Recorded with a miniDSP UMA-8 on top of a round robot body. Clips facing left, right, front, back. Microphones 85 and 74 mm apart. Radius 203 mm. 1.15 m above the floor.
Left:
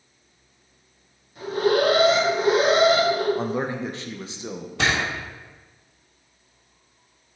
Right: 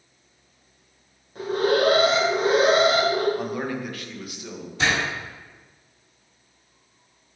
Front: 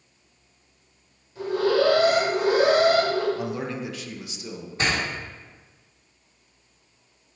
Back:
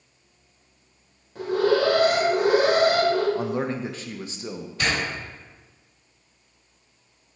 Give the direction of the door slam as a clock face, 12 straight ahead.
10 o'clock.